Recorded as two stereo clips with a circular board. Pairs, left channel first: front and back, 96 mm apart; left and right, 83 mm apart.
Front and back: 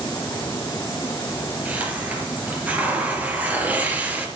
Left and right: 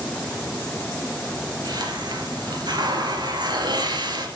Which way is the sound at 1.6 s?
110° right.